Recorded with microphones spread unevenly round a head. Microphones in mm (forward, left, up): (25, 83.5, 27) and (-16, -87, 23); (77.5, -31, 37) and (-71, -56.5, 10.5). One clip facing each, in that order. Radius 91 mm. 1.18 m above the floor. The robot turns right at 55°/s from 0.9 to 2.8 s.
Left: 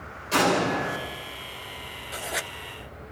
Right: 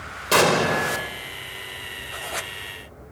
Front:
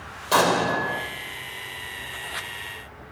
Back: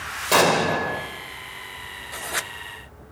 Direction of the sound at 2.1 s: 145° left.